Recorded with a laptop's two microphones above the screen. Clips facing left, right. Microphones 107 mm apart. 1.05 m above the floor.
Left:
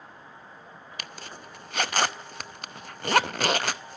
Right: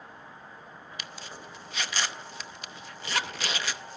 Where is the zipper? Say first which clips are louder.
Left 2 dB; 55° left (ahead or behind), 0.6 m.